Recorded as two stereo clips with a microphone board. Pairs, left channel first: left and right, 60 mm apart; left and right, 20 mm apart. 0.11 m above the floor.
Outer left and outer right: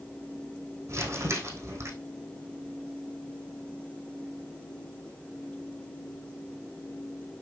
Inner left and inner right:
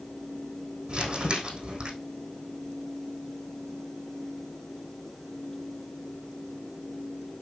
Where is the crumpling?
55° right (ahead or behind), 4 m.